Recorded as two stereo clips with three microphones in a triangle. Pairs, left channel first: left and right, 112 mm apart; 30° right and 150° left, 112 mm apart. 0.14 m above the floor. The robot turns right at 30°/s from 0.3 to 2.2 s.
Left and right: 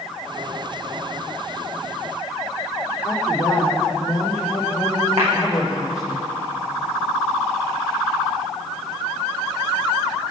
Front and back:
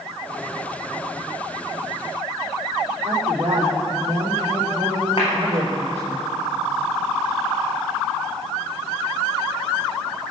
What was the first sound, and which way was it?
A woman speaking, 150° left.